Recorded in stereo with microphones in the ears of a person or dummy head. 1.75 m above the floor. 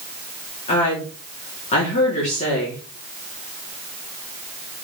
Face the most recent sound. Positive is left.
turn(degrees=40)  # may be behind; listen again after turning